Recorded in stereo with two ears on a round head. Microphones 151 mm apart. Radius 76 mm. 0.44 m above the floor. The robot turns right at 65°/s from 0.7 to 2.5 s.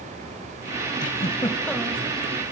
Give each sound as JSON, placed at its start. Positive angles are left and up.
{"t": 1.0, "sound": "a giggle", "azimuth_deg": 125, "distance_m": 1.2}